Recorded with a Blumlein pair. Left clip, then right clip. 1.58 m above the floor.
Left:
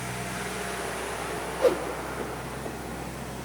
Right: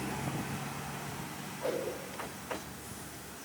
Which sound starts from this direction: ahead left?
A whoosh, at 1.6 s.